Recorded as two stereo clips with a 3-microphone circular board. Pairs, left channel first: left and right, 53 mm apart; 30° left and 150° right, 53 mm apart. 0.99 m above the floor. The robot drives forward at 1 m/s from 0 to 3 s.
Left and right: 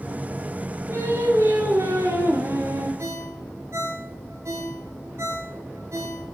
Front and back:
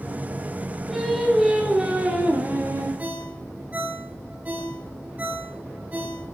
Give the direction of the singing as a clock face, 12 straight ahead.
2 o'clock.